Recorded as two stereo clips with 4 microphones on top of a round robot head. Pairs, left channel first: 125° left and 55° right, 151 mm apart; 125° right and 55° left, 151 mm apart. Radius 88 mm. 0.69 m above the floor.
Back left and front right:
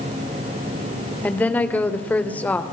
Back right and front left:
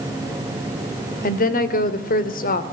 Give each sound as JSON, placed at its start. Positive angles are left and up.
{"t": 1.2, "sound": "a woman speaking", "azimuth_deg": -155, "distance_m": 2.5}